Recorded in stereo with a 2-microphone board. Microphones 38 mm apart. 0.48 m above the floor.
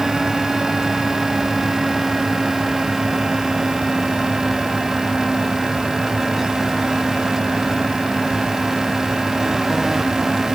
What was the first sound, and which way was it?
Only background noise.